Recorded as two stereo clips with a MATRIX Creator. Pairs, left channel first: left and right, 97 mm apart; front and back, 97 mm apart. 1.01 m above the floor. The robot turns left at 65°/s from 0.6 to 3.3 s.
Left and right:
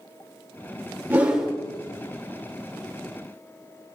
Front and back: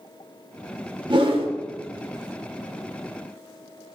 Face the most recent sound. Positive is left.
turn(degrees=60)